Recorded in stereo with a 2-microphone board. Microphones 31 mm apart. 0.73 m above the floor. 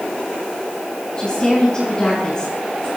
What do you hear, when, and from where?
1.2 s a woman speaking: 25° left (ahead or behind), 8 m